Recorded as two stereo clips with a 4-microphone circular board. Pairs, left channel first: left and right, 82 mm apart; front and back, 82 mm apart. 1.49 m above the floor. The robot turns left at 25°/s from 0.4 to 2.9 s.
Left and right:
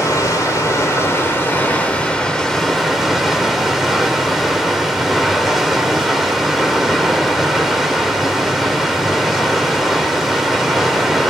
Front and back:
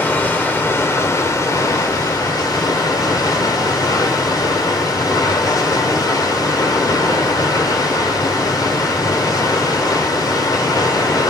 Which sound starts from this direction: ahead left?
Running water, at 0.0 s.